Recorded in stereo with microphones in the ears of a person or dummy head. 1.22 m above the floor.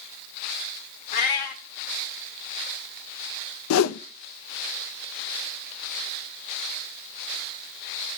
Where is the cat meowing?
40° left (ahead or behind), 1.1 m.